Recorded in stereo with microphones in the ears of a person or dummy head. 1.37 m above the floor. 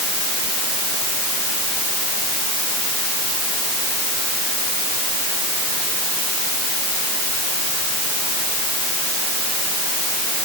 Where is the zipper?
No zipper in this recording.